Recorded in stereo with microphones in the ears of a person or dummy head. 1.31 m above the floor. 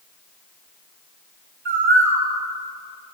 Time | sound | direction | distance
1.6 | a bird | 65° right (ahead or behind) | 2 m